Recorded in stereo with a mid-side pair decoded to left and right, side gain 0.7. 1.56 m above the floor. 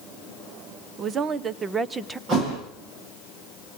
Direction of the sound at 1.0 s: 40° right.